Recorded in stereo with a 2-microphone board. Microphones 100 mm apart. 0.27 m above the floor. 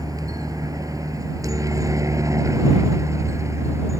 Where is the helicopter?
35° right (ahead or behind); by 4.0 s 30° right (ahead or behind).